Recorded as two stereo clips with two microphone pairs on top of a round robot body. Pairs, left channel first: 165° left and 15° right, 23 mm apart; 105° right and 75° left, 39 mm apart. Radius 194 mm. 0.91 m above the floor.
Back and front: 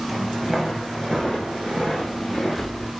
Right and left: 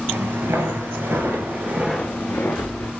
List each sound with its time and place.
0.1 s footsteps: 70° left, 1.4 m; by 2.9 s 105° right, 1.1 m